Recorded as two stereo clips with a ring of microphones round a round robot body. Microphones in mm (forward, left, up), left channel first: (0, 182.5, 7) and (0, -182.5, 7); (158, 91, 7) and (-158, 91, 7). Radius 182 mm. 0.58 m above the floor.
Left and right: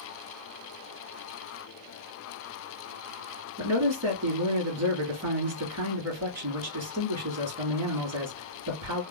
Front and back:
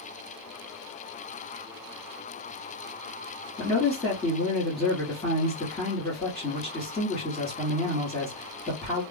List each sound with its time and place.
3.6 s a man speaking: 85° right, 1.4 m